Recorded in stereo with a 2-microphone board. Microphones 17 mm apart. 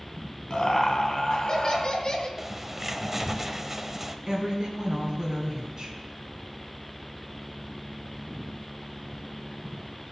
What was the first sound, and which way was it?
Laughter, 45° left (ahead or behind).